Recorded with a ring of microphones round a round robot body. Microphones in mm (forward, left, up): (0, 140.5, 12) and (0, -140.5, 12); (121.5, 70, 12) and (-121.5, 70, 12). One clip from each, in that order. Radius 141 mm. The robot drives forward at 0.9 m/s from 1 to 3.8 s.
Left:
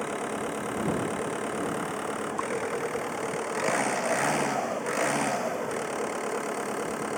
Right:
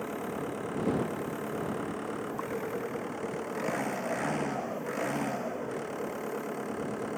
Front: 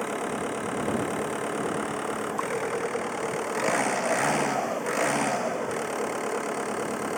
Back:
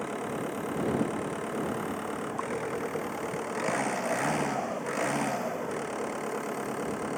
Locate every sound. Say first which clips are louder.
0.0 s an engine running: left 4 dB, front 4 dB; 40° left